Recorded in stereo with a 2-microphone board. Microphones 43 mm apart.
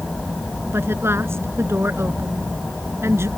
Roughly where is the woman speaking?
Right.